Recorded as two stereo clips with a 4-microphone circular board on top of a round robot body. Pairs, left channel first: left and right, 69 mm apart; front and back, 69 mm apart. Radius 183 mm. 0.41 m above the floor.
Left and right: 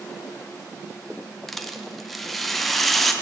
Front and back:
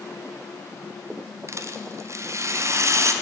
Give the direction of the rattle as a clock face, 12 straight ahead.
6 o'clock.